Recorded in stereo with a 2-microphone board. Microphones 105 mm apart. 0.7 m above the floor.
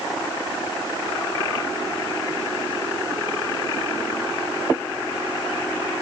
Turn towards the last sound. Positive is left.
No sound to turn to.